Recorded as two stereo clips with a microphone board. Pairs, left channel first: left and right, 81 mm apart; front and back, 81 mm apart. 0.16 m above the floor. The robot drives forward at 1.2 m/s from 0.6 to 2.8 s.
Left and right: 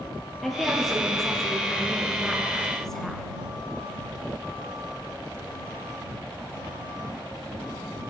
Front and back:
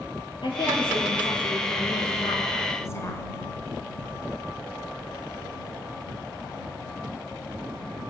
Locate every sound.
0.4 s a woman speaking: straight ahead, 3.5 m; by 3.2 s 10° left, 1.5 m